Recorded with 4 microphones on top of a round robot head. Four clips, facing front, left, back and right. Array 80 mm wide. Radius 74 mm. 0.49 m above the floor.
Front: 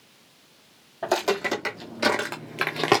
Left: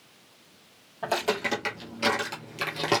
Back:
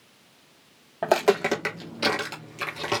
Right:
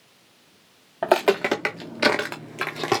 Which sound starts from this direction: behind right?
Footsteps, at 1.0 s.